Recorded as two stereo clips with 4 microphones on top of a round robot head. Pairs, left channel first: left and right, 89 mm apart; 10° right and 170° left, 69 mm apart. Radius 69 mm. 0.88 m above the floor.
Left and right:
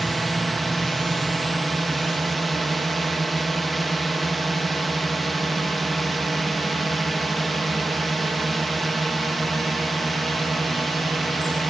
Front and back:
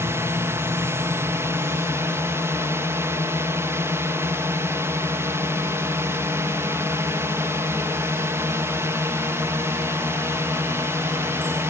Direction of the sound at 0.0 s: Straight behind.